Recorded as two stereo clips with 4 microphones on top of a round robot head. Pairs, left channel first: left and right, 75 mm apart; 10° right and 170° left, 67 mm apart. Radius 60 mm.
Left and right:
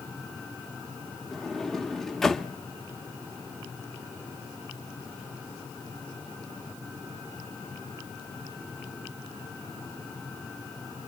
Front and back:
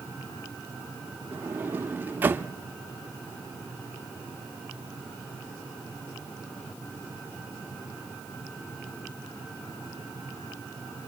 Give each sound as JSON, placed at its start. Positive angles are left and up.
{"t": 1.3, "sound": "a sliding door", "azimuth_deg": 170, "distance_m": 0.8}